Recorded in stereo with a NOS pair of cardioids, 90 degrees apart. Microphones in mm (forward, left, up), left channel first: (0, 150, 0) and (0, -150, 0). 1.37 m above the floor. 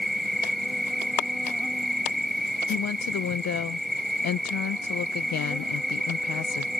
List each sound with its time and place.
0.0 s an insect: straight ahead
2.7 s a woman speaking: 60° left